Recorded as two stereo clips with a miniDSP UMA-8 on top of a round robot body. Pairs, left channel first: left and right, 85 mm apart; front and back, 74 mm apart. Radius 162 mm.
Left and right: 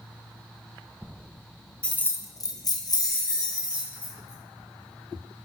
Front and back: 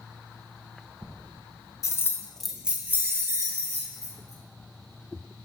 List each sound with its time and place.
1.8 s keys jangling: 15° left, 0.6 m; by 5.5 s 140° left, 2 m